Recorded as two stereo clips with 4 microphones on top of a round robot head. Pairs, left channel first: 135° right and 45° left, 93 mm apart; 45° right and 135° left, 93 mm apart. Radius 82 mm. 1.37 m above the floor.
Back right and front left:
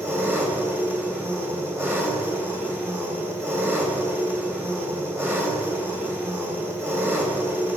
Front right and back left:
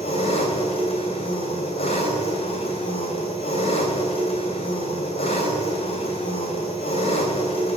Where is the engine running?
25° right, 3 m.